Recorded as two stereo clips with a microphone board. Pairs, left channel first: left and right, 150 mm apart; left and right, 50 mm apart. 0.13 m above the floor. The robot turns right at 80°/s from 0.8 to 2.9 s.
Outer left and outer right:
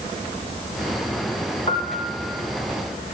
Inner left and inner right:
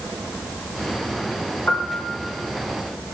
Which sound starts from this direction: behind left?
A piano, at 1.7 s.